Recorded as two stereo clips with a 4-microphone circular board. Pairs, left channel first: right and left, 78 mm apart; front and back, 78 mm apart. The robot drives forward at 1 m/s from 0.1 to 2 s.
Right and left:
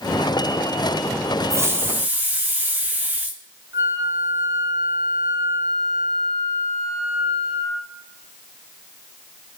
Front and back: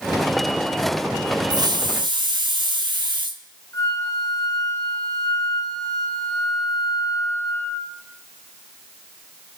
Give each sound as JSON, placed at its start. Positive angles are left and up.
{"t": 1.5, "sound": "a hiss", "azimuth_deg": 145, "distance_m": 0.7}
{"t": 3.7, "sound": "a flute", "azimuth_deg": 45, "distance_m": 5.0}